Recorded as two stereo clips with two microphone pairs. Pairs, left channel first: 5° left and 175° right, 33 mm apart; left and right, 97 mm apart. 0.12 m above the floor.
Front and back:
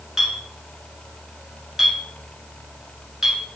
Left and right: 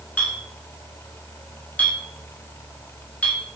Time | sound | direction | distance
0.2 | a clink | 130° left | 0.9 m